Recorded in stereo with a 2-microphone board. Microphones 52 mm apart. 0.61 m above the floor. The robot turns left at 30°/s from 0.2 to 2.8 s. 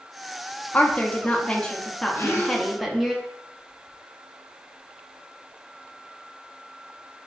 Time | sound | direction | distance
0.7 | a woman speaking | 55° left | 0.7 m
2.1 | a gasp | 60° left (ahead or behind) | 1.1 m